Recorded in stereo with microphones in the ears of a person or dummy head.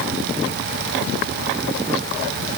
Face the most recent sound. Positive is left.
No sound to turn to.